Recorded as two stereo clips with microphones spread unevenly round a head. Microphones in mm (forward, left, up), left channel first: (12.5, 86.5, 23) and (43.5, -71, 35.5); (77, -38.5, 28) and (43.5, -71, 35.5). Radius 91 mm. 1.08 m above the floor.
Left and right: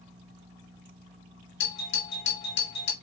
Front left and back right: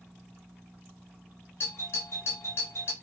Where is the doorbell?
95° left, 3.5 m.